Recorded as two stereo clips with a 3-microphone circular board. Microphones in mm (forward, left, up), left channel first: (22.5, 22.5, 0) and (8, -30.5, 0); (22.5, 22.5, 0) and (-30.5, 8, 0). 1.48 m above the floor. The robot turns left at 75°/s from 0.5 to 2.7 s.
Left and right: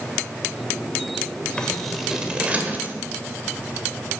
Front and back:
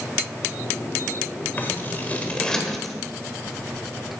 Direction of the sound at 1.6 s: 15° left.